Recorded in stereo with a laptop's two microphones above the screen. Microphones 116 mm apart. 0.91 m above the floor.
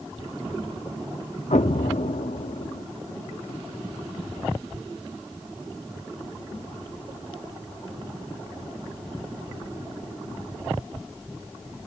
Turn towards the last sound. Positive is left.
turn(degrees=90)